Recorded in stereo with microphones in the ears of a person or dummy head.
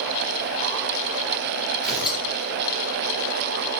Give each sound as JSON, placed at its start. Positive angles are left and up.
{"t": 1.8, "sound": "tearing paper", "side_deg": -5, "distance_m": 2.5}